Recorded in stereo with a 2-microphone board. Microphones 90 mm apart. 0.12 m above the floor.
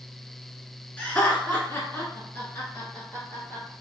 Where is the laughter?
15° left (ahead or behind), 1.3 m; by 3.7 s 25° left (ahead or behind), 2 m.